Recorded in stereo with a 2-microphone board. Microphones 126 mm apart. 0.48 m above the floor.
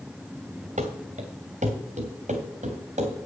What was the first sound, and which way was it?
Running footsteps, 70° right (ahead or behind).